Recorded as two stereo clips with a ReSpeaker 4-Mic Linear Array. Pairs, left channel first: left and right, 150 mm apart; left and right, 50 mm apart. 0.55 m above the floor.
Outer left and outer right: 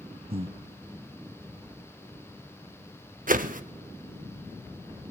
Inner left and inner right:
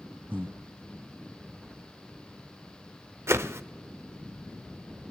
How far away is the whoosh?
About 0.7 m.